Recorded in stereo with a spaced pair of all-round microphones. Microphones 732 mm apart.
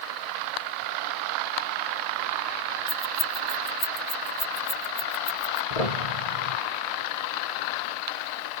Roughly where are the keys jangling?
Left.